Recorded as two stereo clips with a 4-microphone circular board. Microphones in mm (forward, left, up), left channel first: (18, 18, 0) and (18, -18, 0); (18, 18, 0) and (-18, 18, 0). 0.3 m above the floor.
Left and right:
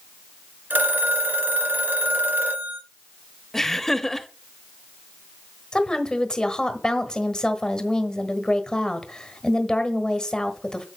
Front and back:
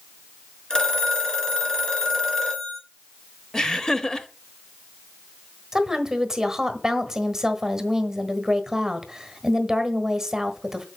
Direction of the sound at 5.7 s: 125° left.